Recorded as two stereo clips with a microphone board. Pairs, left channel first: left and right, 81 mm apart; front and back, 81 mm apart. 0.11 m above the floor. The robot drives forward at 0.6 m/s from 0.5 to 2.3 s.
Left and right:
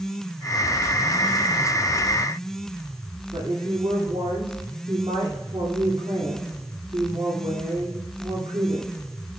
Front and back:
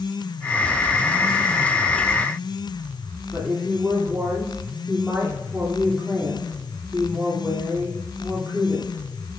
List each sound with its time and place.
3.3 s a woman speaking: 110° right, 3 m